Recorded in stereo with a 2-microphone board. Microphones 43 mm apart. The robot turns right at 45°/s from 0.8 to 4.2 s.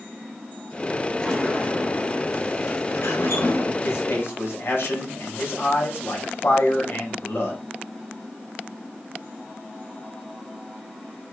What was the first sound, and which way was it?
A sliding door, 5° left.